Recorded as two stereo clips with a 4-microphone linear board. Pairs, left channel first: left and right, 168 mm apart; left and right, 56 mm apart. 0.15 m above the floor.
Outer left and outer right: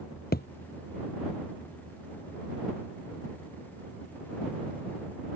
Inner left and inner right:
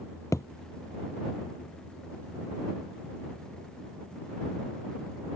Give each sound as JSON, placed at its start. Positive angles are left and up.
{"t": 0.3, "sound": "a thud", "side_deg": 75}